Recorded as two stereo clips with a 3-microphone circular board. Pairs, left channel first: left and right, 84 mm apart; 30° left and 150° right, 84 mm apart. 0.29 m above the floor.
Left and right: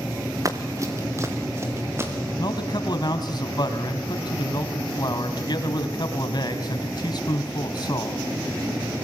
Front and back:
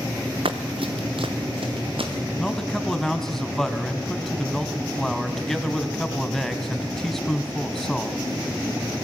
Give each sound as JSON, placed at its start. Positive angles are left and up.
{"t": 0.5, "sound": "running footsteps", "azimuth_deg": -145, "distance_m": 1.9}
{"t": 2.4, "sound": "a man speaking", "azimuth_deg": 115, "distance_m": 2.5}